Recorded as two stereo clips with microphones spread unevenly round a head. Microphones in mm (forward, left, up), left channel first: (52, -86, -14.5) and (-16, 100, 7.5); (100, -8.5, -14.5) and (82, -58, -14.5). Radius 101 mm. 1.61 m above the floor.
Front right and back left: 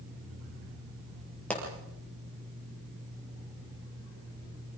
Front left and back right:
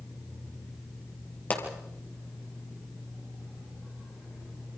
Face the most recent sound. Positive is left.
turn(degrees=15)